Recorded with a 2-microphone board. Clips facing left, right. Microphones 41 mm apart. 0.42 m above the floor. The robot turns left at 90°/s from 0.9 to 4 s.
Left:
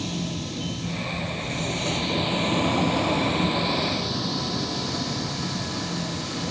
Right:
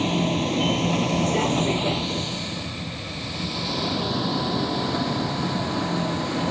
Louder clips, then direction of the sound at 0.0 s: Right 8 dB; 35° right (ahead or behind).